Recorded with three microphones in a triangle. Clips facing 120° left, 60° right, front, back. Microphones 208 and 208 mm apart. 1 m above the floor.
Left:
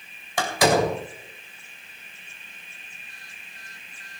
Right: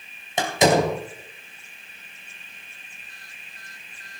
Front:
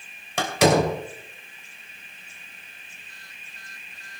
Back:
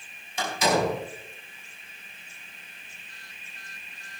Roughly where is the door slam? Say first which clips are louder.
Right 2 dB, front 6 dB; ahead.